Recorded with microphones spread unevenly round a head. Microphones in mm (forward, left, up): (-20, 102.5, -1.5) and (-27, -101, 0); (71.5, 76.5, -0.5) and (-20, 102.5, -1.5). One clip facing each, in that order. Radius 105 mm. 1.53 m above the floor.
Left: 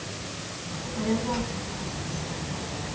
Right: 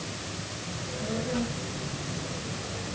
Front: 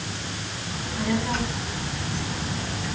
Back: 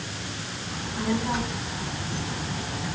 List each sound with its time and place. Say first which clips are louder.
0.7 s a child speaking: left 6 dB, front 1 dB; 90° left, 10 m; by 3.0 s 95° left, 8.5 m